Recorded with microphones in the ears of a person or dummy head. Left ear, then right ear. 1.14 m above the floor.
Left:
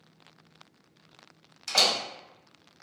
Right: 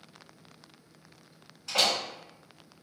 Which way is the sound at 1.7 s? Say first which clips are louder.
Left 2 dB; 75° left (ahead or behind).